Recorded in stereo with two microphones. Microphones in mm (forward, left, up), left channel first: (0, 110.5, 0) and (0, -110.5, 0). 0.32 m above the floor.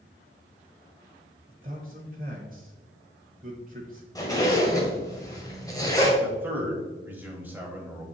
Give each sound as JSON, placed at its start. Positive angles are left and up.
{"t": 1.5, "sound": "a man speaking", "side_deg": -35, "distance_m": 1.0}
{"t": 4.2, "sound": "a zipper", "side_deg": 15, "distance_m": 1.4}
{"t": 6.2, "sound": "a man speaking", "side_deg": -10, "distance_m": 1.4}